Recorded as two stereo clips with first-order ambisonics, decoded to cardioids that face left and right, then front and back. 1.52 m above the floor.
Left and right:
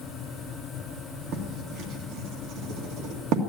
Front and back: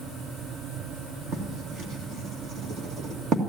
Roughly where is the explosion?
I don't hear an explosion.